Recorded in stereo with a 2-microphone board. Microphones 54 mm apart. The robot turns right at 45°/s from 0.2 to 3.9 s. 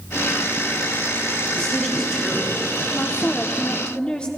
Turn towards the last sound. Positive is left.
turn(degrees=20)  # may be behind; listen again after turning